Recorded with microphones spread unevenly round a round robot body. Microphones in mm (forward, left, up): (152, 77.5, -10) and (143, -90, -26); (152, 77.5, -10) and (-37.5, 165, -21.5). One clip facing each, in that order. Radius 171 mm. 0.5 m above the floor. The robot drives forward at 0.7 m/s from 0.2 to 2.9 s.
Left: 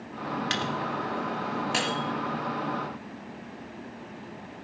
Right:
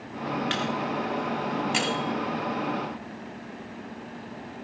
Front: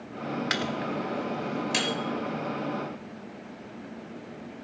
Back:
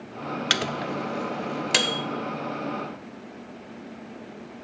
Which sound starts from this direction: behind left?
A microwave, at 0.5 s.